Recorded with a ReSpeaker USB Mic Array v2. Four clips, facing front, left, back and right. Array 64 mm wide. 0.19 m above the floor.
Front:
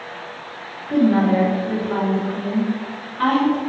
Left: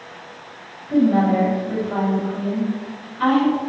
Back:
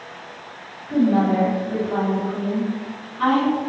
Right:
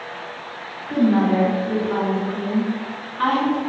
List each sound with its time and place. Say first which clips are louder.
0.9 s a woman speaking: left 1 dB, front 2 dB; 55° right, 2.0 m